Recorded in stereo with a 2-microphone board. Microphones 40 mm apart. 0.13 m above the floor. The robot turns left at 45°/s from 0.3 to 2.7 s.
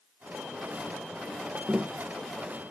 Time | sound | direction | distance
1.7 | tapping | 35° right (ahead or behind) | ?